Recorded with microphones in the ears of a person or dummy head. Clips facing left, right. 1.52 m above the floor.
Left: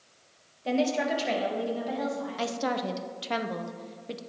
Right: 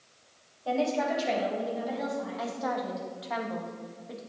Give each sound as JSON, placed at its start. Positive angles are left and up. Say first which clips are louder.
{"t": 0.7, "sound": "a woman speaking", "louder": "left 1 dB", "side_deg": 25, "distance_m": 1.1}
{"t": 2.4, "sound": "a woman speaking", "louder": "left 5 dB", "side_deg": 40, "distance_m": 0.5}